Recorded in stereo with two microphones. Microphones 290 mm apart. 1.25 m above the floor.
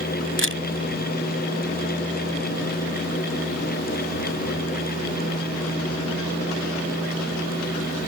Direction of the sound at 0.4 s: 45° left (ahead or behind).